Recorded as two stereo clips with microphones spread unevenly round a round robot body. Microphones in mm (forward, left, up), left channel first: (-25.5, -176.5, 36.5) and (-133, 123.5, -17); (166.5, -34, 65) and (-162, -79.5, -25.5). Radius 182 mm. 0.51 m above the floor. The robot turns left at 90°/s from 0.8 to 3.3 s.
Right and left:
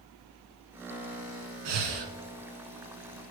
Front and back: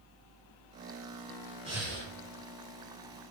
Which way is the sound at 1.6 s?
110° left.